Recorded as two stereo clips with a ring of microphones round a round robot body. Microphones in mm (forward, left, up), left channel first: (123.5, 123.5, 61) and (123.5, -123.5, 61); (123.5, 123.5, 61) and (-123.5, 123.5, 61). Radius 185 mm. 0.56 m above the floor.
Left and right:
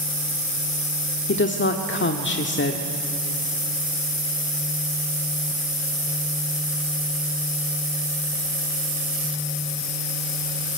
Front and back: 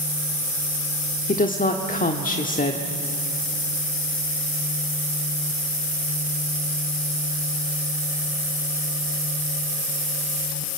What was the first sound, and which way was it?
A woman speaking, 55° left.